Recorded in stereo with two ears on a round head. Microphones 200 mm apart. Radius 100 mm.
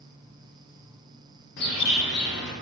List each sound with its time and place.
1.6 s a bird: 50° left (ahead or behind), 1.1 m